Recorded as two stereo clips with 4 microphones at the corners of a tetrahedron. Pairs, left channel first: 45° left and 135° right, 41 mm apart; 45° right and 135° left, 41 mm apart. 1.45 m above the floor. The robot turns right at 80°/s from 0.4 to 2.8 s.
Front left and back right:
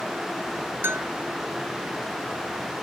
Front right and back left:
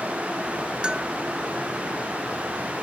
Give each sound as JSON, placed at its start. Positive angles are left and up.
{"t": 0.8, "sound": "a bell", "azimuth_deg": -160}